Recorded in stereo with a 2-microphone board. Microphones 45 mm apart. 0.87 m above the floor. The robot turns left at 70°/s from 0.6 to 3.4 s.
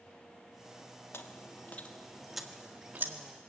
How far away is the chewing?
About 1.7 m.